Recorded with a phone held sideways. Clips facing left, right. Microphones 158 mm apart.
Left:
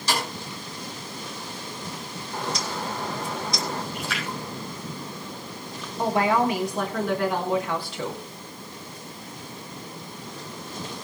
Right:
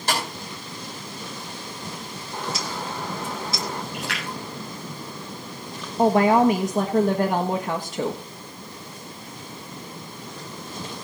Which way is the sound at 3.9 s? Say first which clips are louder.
Even; 80° right.